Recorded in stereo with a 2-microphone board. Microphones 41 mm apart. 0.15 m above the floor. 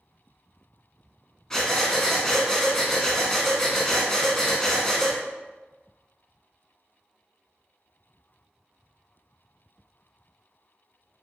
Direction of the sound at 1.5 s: 15° left (ahead or behind).